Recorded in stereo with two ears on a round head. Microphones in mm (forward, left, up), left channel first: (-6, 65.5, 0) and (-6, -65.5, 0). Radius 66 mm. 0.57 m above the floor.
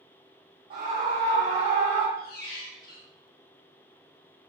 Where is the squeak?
70° left (ahead or behind), 0.7 m.